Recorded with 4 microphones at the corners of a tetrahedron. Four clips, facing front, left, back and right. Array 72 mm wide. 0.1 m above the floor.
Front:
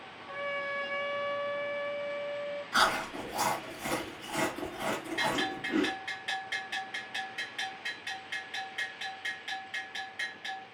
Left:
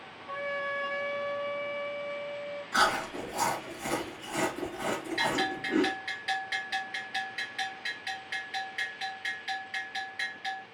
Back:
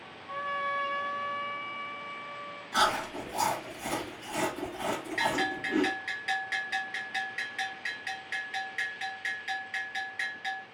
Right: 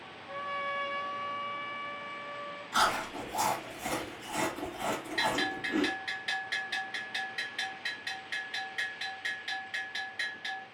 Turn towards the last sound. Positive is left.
turn(degrees=140)